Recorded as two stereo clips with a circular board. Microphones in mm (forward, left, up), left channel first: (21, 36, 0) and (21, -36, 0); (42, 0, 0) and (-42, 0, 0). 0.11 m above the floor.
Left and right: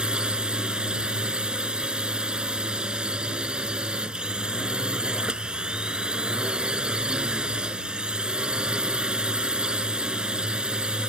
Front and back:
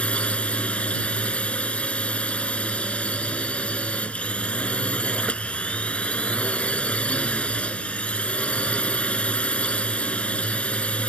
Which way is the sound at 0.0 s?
40° right.